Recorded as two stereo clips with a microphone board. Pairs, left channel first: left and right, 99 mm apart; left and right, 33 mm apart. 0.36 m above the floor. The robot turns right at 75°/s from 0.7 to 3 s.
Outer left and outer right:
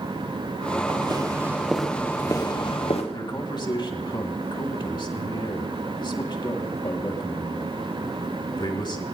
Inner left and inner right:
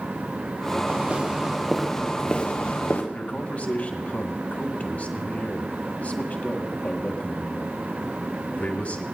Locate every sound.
0.9 s footsteps: 60° right (ahead or behind), 3.5 m; by 3.0 s 75° left (ahead or behind), 3 m
3.1 s a man speaking: 50° left (ahead or behind), 2.5 m